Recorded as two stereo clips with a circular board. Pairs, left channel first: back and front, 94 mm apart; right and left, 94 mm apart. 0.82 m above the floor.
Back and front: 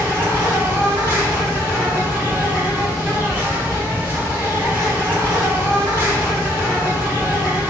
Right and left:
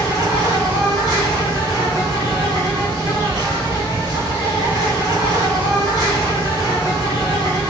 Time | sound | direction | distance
0.0 | an insect | 65° left | 1.5 m